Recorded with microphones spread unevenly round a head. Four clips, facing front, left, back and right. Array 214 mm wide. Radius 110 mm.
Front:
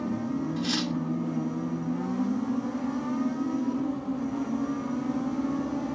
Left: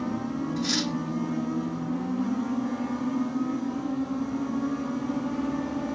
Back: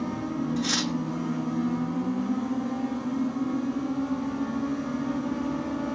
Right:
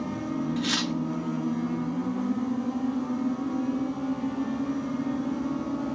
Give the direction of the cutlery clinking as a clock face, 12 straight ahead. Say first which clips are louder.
Even, back 1 dB; 5 o'clock.